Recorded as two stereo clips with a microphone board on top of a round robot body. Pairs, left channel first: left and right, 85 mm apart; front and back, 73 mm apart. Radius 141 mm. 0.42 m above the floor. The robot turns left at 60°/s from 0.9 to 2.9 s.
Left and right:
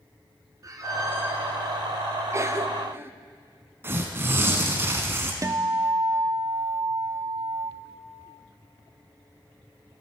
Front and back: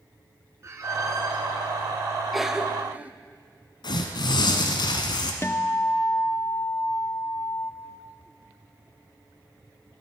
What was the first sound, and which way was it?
A squeak, 135° right.